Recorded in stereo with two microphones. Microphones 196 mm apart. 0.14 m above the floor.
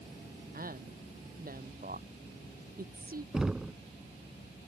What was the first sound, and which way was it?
A woman speaking, 50° right (ahead or behind).